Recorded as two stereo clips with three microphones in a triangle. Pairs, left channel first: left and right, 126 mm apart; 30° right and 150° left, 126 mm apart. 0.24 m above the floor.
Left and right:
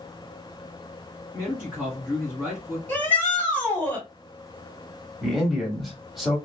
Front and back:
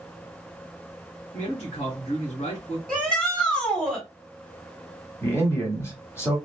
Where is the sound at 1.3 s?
10° right, 1.7 m.